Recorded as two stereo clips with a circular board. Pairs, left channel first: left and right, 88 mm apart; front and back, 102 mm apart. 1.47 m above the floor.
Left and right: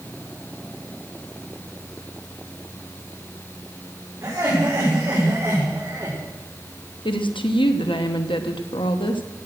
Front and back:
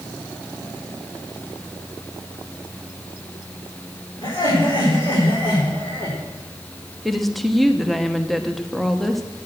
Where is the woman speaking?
90° left, 1.1 m.